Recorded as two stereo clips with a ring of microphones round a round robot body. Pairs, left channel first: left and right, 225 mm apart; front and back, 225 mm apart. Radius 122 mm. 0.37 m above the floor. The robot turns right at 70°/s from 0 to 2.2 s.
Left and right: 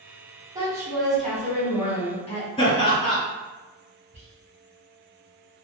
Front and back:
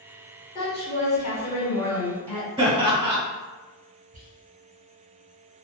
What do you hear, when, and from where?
0.6 s a woman speaking: 40° right, 1.1 m; by 2.5 s 75° left, 1.1 m
2.6 s laughter: 130° left, 0.9 m
4.1 s whispering: 125° right, 1.2 m